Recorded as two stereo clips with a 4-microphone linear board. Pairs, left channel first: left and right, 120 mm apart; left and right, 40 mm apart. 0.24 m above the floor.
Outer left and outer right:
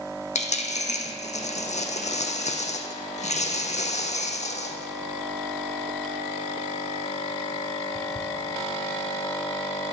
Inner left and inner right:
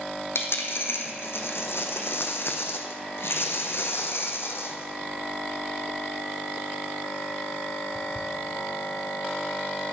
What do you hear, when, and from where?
0.3 s a dropped coin: 70° left (ahead or behind), 0.8 m